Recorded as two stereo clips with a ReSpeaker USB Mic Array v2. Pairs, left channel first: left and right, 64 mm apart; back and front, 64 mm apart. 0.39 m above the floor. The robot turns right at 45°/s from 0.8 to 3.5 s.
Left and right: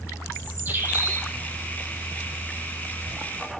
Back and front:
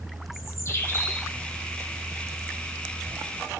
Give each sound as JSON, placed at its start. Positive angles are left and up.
{"t": 0.3, "sound": "a bird", "azimuth_deg": -145, "distance_m": 2.5}